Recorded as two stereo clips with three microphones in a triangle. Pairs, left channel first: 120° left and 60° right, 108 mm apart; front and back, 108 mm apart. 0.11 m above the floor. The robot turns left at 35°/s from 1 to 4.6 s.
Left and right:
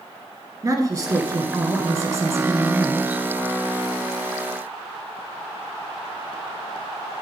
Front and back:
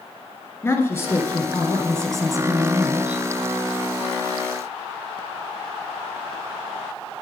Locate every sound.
0.6 s a woman speaking: 45° right, 1.2 m; by 3.2 s 120° right, 1.2 m